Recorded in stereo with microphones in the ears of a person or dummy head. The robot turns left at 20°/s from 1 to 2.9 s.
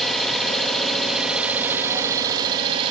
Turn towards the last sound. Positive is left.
turn(degrees=-35)